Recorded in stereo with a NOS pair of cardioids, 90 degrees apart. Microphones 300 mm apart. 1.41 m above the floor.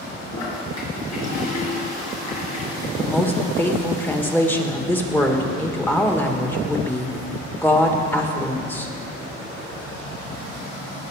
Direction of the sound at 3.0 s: 5° left.